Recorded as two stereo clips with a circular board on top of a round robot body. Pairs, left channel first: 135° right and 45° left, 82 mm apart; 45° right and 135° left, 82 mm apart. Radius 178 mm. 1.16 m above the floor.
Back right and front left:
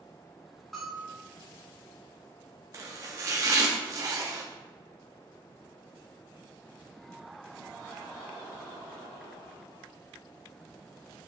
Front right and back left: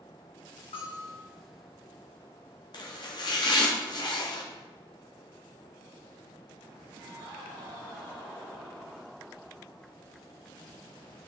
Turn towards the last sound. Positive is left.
turn(degrees=-10)